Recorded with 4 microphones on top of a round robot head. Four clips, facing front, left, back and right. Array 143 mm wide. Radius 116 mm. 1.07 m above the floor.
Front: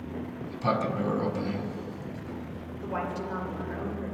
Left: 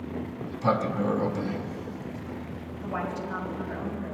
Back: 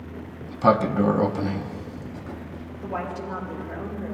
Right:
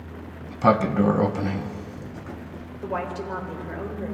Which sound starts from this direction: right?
A woman speaking, at 2.8 s.